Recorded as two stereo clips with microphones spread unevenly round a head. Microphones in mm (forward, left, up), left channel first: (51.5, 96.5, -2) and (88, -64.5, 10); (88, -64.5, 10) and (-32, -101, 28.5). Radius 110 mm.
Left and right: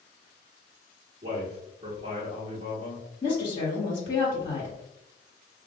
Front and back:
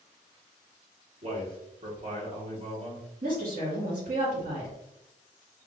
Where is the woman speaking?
165° left, 1.6 m.